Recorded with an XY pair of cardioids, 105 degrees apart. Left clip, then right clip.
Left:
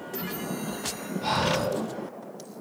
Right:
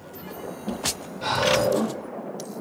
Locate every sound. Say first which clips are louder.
1.2 s breathing: right 5 dB; 70° right, 2.5 m